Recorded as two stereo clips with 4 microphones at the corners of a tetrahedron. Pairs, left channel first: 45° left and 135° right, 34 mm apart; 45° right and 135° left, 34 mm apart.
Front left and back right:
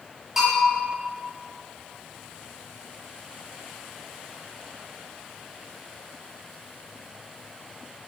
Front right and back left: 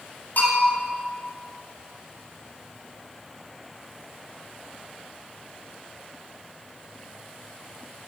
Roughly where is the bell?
Ahead right.